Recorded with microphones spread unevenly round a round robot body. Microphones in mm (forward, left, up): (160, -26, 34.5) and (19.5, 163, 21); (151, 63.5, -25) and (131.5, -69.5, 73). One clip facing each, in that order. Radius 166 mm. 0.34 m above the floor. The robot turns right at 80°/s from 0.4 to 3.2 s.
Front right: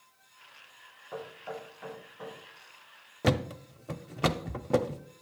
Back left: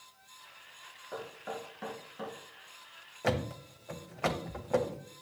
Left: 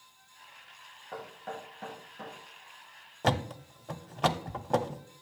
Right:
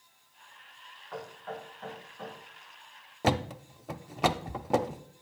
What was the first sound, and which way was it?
Knocking, 35° left.